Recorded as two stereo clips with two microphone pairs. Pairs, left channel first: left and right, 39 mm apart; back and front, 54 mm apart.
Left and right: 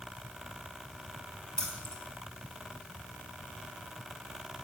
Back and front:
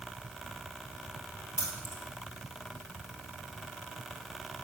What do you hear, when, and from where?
1.6 s keys jangling: 160° left, 2.5 m